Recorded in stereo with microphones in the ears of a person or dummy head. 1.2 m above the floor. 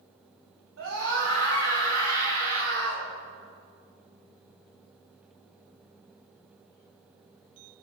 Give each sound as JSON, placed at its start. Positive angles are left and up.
{"t": 0.8, "sound": "a scream", "side_deg": -75, "distance_m": 7.5}